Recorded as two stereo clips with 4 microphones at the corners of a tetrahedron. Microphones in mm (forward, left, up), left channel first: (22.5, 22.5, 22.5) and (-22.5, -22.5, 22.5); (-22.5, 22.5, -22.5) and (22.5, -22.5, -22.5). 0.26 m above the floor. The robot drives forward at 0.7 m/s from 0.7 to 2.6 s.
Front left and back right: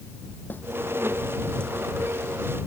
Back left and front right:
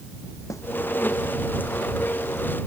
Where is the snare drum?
100° left.